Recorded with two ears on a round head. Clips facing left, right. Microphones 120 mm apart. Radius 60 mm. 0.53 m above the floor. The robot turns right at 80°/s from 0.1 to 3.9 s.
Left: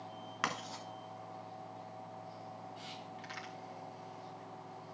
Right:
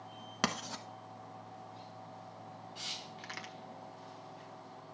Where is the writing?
40° right (ahead or behind), 1.1 m; by 0.8 s 70° right (ahead or behind), 1.1 m.